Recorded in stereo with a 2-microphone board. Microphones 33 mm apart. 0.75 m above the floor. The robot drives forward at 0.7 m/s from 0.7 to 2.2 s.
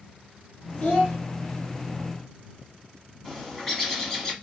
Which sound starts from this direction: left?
A child speaking, at 0.8 s.